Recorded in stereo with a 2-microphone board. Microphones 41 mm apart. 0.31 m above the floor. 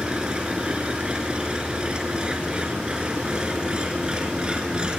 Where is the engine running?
25° right (ahead or behind), 3 m.